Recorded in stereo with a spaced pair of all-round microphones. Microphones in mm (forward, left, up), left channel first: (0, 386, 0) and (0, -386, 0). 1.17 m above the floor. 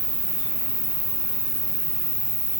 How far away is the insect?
About 1.2 m.